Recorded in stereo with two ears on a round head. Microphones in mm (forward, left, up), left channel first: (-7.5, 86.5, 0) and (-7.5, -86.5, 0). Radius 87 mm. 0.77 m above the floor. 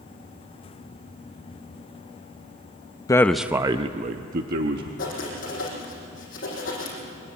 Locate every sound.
3.1 s a man speaking: 20° left (ahead or behind), 0.6 m; by 4.9 s 55° right (ahead or behind), 1.4 m
5.0 s writing: 45° left (ahead or behind), 6.5 m